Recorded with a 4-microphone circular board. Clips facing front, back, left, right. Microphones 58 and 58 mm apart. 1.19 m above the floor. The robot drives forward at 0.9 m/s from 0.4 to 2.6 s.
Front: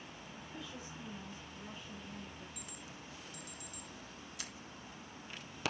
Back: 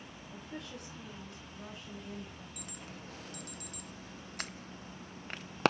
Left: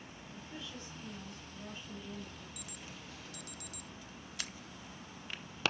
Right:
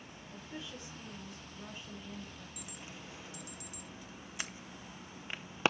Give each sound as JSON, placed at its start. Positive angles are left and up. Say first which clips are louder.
{"t": 0.3, "sound": "a woman speaking", "louder": "back 4 dB, right 2 dB", "azimuth_deg": -165, "distance_m": 4.5}
{"t": 2.6, "sound": "an alarm", "louder": "back 3 dB, right 1 dB", "azimuth_deg": -155, "distance_m": 0.6}